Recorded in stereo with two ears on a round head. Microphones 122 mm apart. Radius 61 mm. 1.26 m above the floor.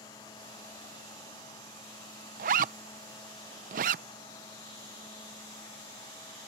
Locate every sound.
2.4 s a zipper: 65° right (ahead or behind)